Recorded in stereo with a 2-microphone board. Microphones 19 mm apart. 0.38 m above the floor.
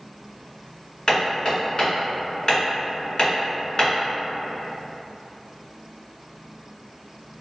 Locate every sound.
1.1 s hammering: 45° left (ahead or behind), 1.8 m